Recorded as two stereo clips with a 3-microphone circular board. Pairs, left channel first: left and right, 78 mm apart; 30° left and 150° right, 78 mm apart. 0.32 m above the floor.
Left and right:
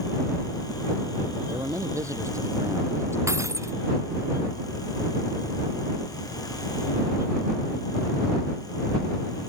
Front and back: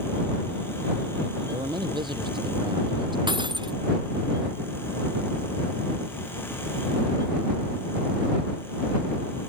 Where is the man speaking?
135° right; by 3.2 s 145° right.